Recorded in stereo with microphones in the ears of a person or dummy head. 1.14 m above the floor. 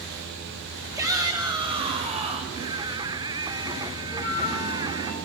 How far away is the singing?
About 0.8 m.